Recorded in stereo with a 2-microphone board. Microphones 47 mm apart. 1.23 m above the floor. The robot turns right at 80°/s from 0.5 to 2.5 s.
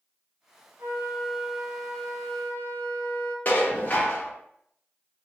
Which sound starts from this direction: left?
Dishes clattering, at 3.5 s.